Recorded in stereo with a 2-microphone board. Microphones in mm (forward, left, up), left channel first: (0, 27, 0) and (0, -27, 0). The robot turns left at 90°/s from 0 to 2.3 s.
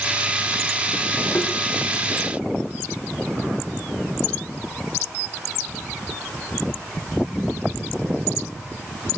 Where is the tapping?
45° left (ahead or behind), 3.5 m; by 1.5 s 30° left (ahead or behind), 3.5 m.